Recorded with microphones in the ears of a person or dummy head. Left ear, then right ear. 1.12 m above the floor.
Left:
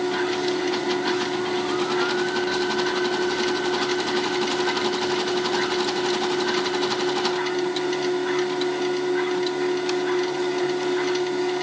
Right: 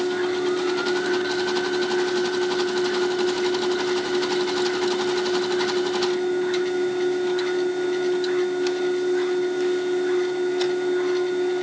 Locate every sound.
0.0 s a machine running: 45° left (ahead or behind), 7 m